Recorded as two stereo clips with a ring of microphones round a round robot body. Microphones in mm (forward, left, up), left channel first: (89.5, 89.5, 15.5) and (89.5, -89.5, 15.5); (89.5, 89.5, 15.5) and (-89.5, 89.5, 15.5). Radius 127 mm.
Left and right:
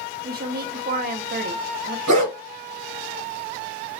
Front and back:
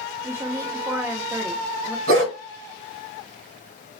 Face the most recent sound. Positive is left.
turn(degrees=-135)